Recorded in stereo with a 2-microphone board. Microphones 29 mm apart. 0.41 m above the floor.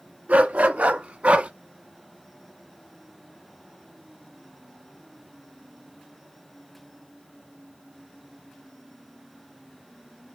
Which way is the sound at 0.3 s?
75° right (ahead or behind).